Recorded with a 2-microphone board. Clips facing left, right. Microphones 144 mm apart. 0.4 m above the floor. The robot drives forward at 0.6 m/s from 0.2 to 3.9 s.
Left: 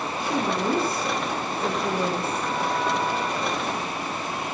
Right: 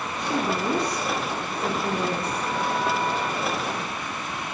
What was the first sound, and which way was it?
A woman speaking, 5° left (ahead or behind).